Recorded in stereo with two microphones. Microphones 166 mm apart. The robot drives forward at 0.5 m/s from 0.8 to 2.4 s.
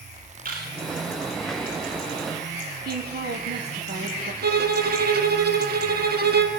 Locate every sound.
0.5 s a camera shutter: 60° right (ahead or behind), 9.5 m
2.9 s a woman speaking: 70° right (ahead or behind), 4.5 m
4.4 s a violin: 70° right (ahead or behind), 3 m